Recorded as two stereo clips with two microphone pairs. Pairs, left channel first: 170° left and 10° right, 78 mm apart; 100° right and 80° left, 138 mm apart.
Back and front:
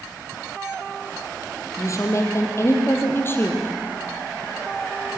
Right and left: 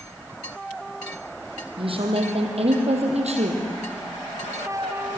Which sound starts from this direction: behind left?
A woman speaking, at 1.8 s.